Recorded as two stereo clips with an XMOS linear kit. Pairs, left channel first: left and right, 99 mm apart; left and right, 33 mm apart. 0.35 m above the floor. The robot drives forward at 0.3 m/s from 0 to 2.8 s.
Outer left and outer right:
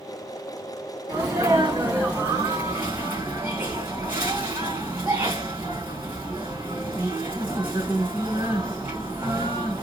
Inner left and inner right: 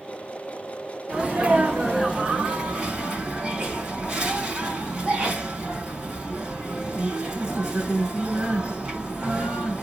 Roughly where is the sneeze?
Right.